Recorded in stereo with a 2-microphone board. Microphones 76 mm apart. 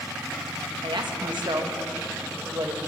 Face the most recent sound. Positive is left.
turn(degrees=-80)